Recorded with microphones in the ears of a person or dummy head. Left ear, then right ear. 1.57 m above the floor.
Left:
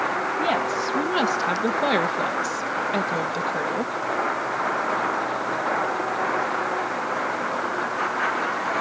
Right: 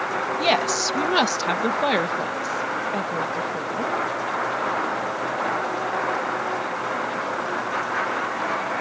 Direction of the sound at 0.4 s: 45° right (ahead or behind).